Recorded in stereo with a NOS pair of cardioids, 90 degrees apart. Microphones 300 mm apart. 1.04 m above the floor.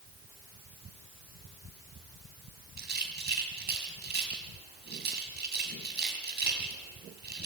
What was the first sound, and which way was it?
A rattle, 35° right.